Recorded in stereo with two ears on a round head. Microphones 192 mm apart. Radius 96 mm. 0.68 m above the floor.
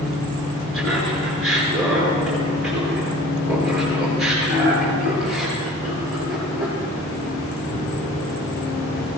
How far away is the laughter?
About 8.5 m.